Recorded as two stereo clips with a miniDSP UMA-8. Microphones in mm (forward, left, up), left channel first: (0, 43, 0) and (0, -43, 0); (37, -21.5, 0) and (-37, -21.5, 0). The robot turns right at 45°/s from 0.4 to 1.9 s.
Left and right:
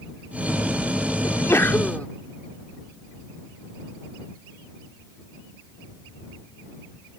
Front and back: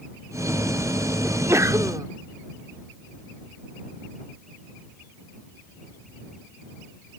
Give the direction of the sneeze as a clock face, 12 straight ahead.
8 o'clock.